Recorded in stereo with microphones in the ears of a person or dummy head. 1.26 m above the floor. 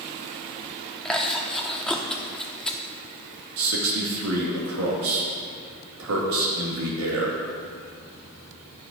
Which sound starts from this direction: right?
A man speaking, at 3.6 s.